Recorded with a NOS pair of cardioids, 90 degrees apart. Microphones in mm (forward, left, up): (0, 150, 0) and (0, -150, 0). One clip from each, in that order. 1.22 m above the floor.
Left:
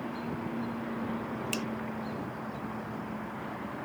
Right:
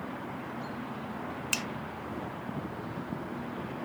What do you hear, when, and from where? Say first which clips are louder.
1.5 s a finger snap: right 5 dB; 35° right